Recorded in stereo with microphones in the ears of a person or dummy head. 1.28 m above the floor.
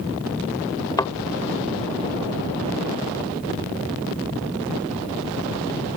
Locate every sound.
1.0 s a thud: 20° left (ahead or behind)